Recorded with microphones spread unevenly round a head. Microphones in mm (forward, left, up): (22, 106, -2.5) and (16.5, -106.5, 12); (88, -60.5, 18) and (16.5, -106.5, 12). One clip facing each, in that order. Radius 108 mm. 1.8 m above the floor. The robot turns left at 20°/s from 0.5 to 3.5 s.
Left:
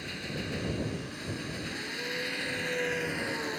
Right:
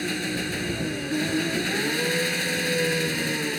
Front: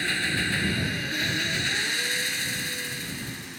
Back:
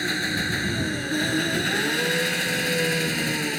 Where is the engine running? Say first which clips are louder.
Right 10 dB, back 2 dB; 80° right; by 3.6 s 140° right.